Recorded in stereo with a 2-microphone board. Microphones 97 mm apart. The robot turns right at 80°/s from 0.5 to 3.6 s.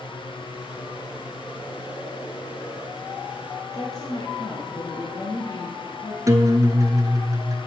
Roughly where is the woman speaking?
Left.